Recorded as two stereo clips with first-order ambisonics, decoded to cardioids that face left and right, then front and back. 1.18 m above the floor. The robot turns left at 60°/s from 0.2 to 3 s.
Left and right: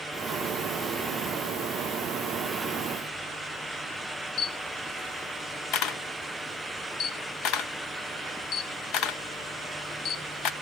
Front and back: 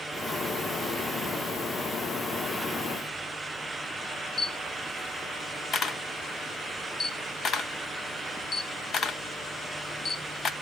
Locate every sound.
4.4 s a camera shutter: 60° left, 1.0 m